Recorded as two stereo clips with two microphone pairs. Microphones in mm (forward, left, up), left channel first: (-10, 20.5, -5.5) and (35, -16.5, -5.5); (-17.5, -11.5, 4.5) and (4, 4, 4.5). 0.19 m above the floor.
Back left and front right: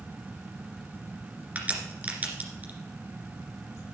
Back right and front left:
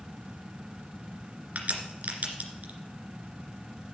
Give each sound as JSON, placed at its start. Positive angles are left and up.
{"t": 1.6, "sound": "a crack", "azimuth_deg": 25, "distance_m": 2.5}